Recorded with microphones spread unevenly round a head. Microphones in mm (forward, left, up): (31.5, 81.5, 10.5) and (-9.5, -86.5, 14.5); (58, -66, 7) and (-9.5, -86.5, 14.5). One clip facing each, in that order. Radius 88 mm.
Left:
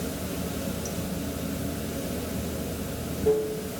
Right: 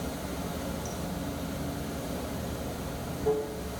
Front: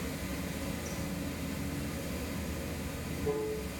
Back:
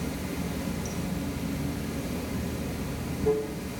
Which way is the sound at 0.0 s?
140° left.